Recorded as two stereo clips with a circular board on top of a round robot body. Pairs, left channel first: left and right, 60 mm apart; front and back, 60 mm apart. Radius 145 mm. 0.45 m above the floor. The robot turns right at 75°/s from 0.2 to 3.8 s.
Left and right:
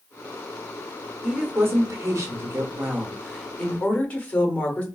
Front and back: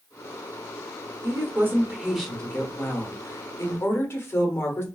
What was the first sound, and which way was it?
A woman speaking, 160° right.